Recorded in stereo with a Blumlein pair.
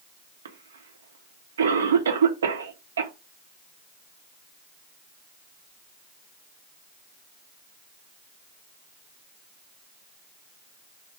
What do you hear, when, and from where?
0.5 s a cough: 65° right, 0.7 m